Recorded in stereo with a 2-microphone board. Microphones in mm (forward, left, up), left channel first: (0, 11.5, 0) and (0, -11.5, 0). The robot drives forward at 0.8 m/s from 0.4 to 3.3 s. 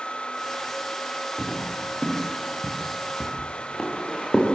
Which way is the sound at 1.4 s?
35° left (ahead or behind).